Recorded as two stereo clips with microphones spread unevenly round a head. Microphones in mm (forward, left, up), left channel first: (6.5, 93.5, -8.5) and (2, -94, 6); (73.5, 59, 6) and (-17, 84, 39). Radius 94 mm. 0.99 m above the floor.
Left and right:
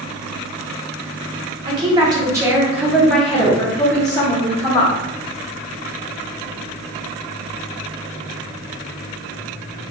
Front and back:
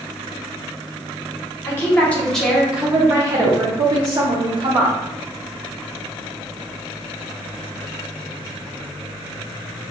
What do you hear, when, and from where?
1.6 s a woman speaking: 30° right, 1.0 m; by 5.0 s 145° left, 1.3 m